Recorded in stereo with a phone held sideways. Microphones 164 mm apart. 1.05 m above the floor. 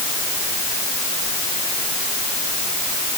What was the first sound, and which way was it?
Only background noise.